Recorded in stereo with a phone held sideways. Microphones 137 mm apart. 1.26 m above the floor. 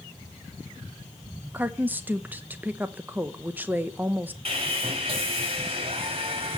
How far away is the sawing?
About 2 m.